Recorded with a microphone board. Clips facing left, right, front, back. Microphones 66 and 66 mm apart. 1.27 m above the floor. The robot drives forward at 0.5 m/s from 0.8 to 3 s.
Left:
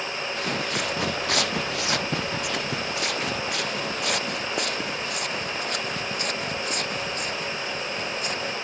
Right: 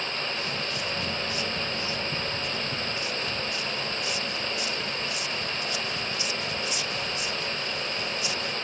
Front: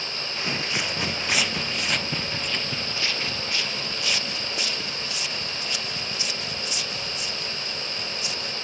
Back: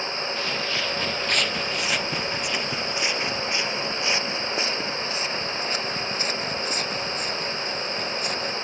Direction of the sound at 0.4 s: 70° left.